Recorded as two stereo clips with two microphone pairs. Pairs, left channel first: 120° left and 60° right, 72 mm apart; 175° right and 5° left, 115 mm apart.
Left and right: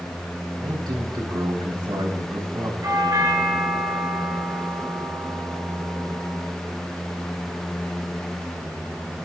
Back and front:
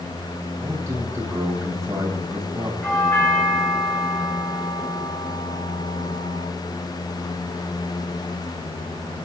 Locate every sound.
0.6 s a man speaking: 60° right, 3.5 m
2.8 s a doorbell: 105° right, 7.5 m